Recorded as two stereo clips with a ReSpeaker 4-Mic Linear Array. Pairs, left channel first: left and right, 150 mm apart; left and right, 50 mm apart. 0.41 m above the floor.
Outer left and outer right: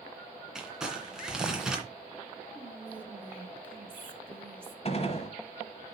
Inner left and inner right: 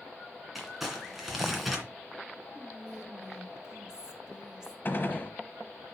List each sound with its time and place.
0.6 s crumpling: 5° right (ahead or behind), 2 m
2.5 s whispering: 15° right (ahead or behind), 0.7 m
4.8 s a gunshot: 45° left (ahead or behind), 1.1 m